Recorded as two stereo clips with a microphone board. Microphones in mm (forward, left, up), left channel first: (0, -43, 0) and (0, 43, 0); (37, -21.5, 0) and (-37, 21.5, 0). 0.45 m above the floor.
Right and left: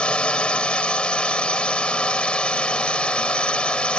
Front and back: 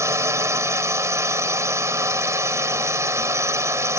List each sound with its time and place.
0.0 s a drone: 165° right